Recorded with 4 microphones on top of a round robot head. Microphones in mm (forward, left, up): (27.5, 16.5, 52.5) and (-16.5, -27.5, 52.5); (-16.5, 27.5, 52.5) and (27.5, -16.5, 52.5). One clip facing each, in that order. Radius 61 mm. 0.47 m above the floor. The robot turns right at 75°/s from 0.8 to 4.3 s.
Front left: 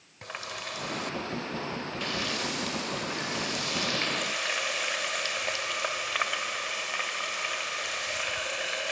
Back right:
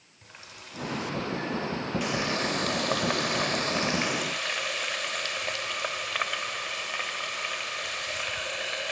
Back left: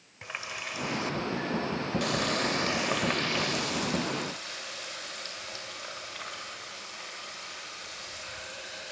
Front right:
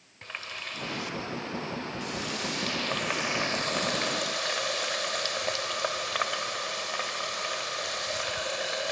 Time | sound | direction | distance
0.2 | a running tap | 55° left | 1.5 m